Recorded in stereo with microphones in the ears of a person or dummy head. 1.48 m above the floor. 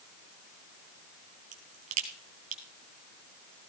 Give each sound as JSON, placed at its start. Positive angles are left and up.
{"t": 1.5, "sound": "a crack", "side_deg": -40, "distance_m": 2.5}